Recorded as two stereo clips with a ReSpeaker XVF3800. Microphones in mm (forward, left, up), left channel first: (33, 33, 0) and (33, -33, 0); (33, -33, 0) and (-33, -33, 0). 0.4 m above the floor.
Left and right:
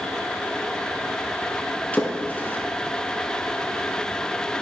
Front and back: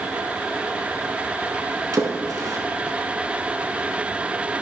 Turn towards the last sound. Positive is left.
turn(degrees=155)